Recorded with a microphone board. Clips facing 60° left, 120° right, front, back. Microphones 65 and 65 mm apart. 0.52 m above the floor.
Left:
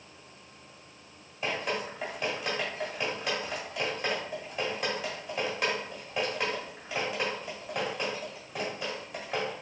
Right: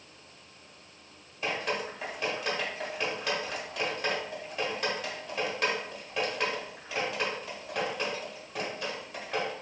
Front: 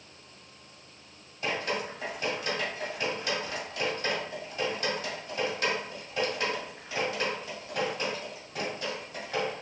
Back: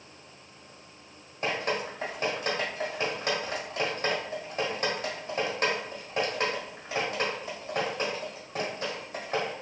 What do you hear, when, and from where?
1.4 s dripping: 145° left, 1.3 m